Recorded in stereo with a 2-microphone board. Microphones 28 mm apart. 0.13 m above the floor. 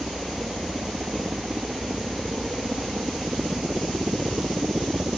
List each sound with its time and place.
0.0 s a helicopter: 65° right (ahead or behind)